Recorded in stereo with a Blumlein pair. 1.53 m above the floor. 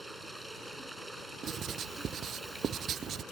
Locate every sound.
0.0 s running water: straight ahead
1.4 s writing: 25° right